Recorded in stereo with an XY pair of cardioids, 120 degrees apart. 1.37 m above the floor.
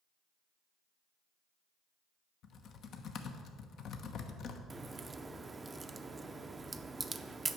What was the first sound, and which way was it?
Typing on a keyboard, 55° left.